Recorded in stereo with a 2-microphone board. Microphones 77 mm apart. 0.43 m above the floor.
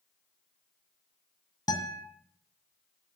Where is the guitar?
60° left (ahead or behind), 2 m.